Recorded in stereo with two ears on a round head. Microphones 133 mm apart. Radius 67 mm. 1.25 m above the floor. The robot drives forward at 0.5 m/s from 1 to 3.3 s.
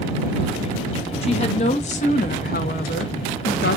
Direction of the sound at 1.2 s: 40° left (ahead or behind).